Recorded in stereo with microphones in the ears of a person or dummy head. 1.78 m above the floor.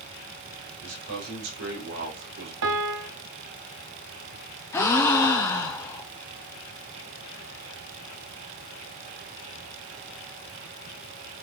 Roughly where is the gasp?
Centre.